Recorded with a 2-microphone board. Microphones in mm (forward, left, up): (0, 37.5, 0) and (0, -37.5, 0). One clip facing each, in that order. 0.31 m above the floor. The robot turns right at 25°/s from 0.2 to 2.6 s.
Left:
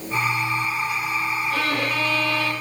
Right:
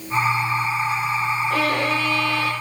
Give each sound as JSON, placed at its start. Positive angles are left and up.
{"t": 1.5, "sound": "a violin", "side_deg": -50, "distance_m": 8.0}